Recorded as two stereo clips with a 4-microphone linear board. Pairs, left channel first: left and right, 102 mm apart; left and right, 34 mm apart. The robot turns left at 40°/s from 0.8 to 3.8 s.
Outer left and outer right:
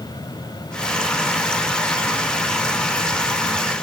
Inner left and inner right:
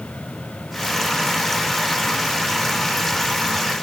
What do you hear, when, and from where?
Only background noise.